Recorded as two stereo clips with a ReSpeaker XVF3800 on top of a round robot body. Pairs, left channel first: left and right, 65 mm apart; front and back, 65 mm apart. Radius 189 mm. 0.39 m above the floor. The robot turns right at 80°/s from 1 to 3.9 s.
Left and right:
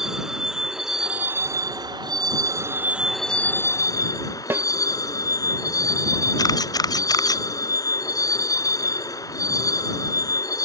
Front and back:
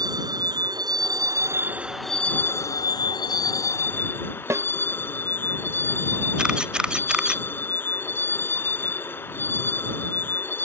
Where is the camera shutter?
100° left.